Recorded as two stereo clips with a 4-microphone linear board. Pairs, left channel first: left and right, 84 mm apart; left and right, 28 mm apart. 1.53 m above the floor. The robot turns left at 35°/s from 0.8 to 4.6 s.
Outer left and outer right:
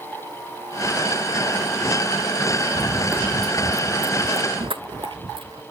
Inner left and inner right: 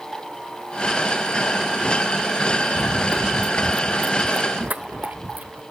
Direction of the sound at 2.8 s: 25° right (ahead or behind).